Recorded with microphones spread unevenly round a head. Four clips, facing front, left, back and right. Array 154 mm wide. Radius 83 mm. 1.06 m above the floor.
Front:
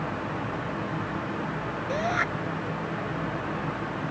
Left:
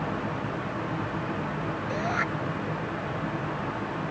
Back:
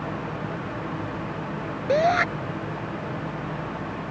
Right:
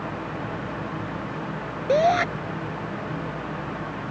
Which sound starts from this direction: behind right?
A shout, at 1.9 s.